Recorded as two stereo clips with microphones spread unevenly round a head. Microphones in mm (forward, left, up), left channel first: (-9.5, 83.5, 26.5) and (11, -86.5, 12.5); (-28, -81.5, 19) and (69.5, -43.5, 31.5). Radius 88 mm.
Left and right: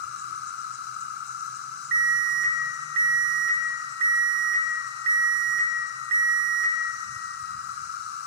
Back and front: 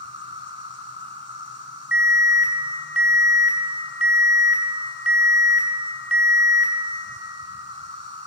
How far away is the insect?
About 1.5 m.